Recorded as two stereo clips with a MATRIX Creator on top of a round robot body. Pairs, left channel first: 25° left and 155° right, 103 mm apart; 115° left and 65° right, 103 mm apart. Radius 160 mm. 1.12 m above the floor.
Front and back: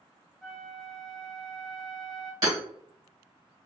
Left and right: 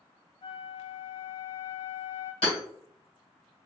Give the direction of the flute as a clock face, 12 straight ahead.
8 o'clock.